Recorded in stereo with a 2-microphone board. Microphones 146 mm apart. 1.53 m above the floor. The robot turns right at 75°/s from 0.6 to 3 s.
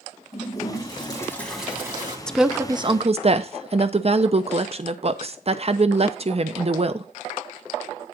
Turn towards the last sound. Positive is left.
turn(degrees=-130)